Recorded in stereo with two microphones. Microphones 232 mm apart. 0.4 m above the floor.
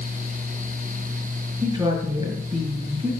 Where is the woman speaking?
20° right (ahead or behind), 6.5 m.